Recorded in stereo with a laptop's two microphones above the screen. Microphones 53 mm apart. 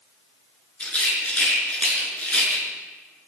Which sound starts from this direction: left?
A rattle, at 0.8 s.